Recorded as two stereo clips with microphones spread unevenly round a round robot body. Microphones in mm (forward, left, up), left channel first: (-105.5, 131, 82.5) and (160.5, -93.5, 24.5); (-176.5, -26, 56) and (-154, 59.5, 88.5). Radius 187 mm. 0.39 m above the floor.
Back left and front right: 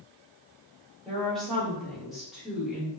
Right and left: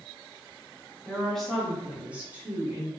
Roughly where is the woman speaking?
Behind right.